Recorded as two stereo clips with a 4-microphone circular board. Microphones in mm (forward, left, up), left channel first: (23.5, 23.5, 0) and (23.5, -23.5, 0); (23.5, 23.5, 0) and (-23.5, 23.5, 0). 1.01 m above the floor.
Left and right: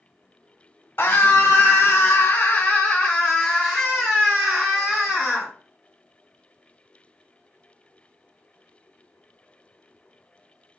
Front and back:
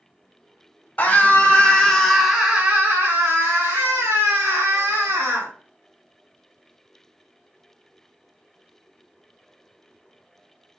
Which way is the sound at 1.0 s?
55° left.